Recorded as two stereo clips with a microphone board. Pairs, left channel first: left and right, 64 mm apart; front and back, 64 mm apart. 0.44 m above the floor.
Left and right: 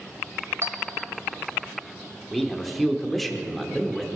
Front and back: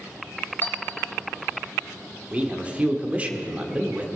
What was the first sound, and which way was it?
A clink, 55° right.